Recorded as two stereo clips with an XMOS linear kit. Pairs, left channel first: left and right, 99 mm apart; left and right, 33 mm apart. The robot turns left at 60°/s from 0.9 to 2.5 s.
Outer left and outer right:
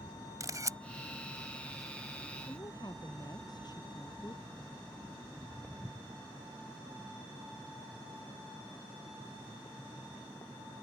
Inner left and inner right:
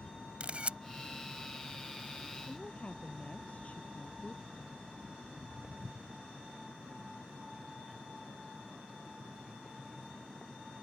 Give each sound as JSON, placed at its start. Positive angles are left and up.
{"t": 0.4, "sound": "a camera shutter", "side_deg": -35}
{"t": 2.5, "sound": "a woman speaking", "side_deg": 45}
{"t": 5.2, "sound": "footsteps", "side_deg": 0}